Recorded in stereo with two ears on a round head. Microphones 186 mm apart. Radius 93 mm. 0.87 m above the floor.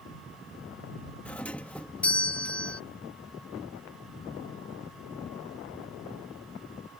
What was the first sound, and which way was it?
A doorbell, 5° left (ahead or behind).